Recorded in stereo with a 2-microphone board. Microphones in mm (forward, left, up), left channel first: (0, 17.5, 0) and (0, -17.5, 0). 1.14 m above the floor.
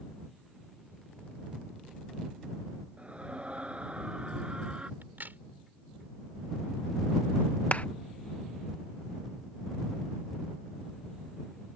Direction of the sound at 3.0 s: 35° right (ahead or behind).